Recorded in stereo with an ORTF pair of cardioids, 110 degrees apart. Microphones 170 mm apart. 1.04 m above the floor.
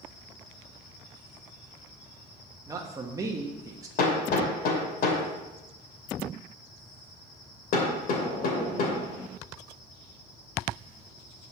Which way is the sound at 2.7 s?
20° right.